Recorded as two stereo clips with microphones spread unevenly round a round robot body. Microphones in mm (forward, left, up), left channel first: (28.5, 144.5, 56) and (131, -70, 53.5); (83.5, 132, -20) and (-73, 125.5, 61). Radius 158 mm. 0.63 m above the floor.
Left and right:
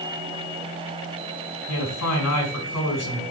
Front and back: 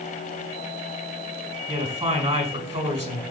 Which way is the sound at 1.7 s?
130° left.